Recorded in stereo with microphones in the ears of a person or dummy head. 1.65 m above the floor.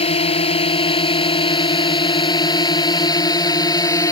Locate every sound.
0.0 s a drone: 35° left (ahead or behind); by 4.1 s 20° left (ahead or behind)